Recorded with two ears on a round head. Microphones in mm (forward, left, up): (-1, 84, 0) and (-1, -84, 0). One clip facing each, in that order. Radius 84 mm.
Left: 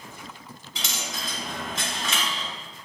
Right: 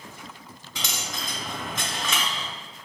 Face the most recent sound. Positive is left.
turn(degrees=-70)  # may be behind; listen again after turning